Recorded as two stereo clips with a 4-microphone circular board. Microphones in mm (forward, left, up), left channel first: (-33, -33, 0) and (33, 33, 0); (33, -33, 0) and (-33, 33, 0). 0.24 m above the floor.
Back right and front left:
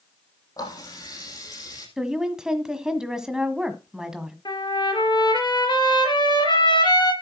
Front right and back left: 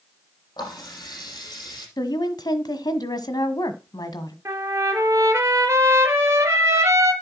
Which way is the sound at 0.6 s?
85° right.